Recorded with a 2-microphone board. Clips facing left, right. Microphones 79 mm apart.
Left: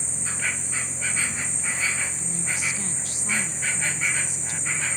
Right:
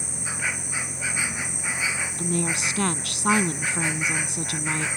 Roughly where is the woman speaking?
Right.